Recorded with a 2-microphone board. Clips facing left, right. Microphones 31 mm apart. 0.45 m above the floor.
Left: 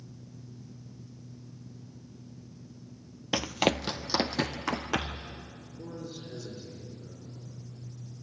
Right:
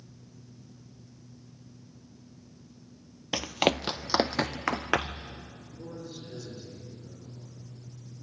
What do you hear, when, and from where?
3.3 s running footsteps: 5° left (ahead or behind), 0.5 m; by 5.3 s 45° right (ahead or behind), 1.8 m
5.8 s a man speaking: 20° left (ahead or behind), 7 m